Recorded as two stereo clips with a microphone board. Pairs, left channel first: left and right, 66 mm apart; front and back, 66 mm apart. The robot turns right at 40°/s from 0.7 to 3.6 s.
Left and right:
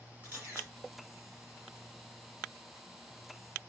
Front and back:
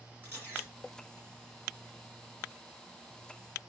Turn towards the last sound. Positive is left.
turn(degrees=-20)